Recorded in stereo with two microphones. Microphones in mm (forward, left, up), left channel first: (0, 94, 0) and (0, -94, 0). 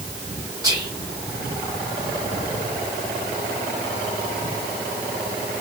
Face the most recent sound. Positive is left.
turn(degrees=-20)  # may be behind; listen again after turning